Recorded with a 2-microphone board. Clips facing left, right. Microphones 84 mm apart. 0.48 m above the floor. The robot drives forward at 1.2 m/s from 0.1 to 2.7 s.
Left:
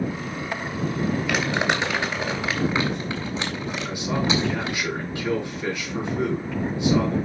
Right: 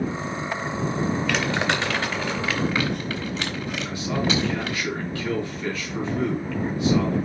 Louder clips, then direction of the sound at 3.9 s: Left 1 dB; 20° left (ahead or behind).